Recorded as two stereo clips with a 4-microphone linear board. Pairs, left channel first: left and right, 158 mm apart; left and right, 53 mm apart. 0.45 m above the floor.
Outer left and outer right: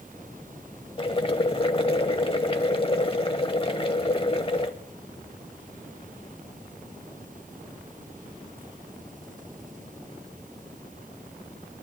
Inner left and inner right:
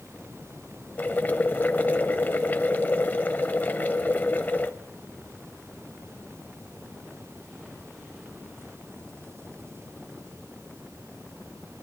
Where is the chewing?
No chewing in this recording.